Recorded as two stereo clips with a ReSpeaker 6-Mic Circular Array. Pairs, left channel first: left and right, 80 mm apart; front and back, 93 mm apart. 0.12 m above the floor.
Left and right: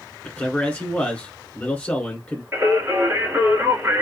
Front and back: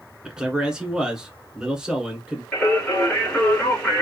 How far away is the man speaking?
About 1.4 m.